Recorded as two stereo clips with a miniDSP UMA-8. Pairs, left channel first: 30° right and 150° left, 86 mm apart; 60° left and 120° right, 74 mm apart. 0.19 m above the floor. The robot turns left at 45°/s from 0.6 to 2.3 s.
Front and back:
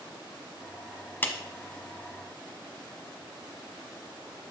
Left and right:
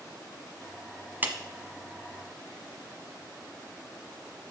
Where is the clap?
75° right, 0.9 m; by 1.4 s 85° right, 0.9 m.